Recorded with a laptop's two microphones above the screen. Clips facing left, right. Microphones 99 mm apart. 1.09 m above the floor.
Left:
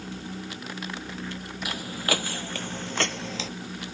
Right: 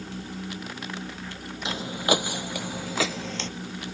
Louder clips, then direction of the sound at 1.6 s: Right 4 dB; 25° right (ahead or behind).